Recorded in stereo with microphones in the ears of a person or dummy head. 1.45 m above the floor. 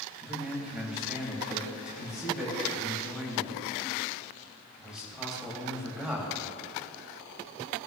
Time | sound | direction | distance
0.2 | a man speaking | 5° right (ahead or behind) | 2.5 m